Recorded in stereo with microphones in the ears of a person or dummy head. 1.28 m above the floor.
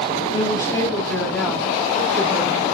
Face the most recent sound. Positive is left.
turn(degrees=-20)  # may be behind; listen again after turning